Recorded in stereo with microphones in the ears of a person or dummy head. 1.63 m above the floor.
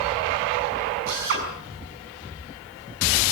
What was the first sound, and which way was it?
A drill, 55° right (ahead or behind).